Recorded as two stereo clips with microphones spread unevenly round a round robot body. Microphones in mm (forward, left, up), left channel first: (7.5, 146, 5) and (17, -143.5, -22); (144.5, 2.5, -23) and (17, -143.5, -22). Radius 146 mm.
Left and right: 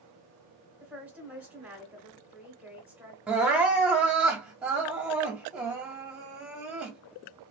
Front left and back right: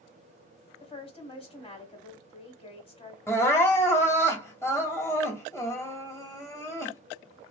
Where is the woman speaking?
10° right, 1.6 m.